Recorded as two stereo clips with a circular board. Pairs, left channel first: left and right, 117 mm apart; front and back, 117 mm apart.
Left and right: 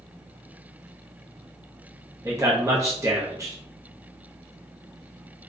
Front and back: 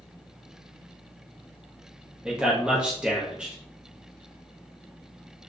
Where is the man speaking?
105° right, 0.9 m.